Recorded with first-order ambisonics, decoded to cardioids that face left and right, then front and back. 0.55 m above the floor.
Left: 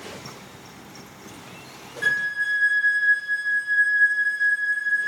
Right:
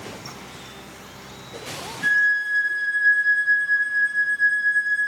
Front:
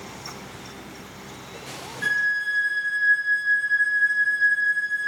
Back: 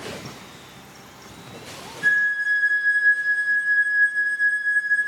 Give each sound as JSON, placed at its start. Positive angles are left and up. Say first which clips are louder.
{"t": 2.0, "sound": "a flute", "louder": "right 4 dB, back 3 dB", "azimuth_deg": 45, "distance_m": 0.8}